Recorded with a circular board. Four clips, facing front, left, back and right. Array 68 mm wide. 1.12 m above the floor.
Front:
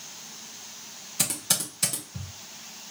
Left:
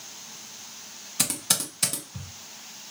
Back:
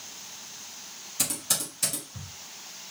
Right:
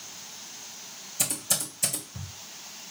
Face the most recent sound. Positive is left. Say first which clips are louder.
# left 3 dB, front 2 dB
turn(degrees=70)